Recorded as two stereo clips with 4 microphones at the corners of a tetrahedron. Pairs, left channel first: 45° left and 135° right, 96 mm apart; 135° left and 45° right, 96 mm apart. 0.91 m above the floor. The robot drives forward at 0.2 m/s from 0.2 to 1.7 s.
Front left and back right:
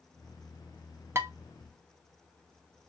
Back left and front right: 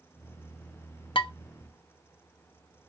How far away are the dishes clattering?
About 0.5 m.